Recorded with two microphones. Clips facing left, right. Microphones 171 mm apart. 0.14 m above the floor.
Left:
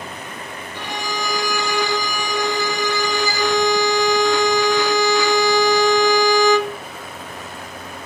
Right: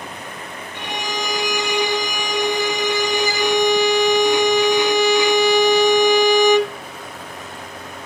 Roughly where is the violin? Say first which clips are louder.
Right 1 dB; right.